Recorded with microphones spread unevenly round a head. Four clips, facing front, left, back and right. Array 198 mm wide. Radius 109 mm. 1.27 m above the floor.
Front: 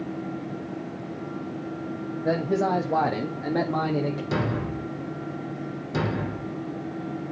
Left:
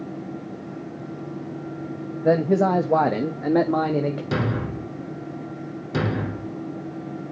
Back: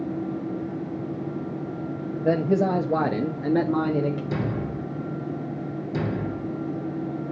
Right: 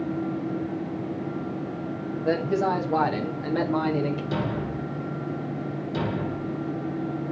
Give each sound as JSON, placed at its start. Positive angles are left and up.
{"t": 2.2, "sound": "a man speaking", "azimuth_deg": 135, "distance_m": 0.9}
{"t": 4.3, "sound": "a thud", "azimuth_deg": 50, "distance_m": 1.4}